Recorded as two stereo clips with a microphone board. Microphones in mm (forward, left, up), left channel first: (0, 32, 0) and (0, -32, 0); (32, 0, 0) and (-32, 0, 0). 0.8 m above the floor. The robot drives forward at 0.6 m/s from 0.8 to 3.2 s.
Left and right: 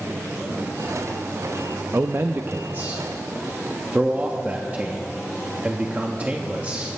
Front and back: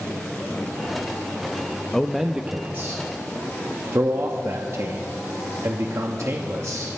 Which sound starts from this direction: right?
A man speaking, at 1.9 s.